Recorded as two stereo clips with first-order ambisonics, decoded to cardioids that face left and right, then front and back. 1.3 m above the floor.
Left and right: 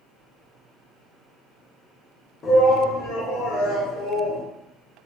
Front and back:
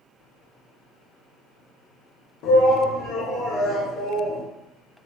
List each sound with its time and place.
2.4 s a shout: 30° left, 1.2 m; by 4.4 s 75° left, 1.6 m